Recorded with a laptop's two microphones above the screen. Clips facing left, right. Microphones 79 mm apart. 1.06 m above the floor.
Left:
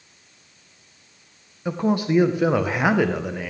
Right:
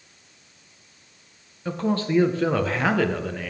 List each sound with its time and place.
1.6 s a man speaking: 15° left (ahead or behind), 0.5 m